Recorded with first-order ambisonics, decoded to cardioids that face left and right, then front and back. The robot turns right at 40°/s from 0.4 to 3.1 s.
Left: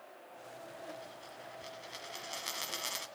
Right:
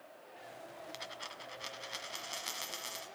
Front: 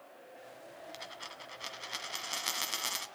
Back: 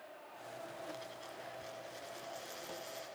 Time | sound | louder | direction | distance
0.9 | a dropped coin | right 3 dB, front 2 dB | 60° right | 1.3 m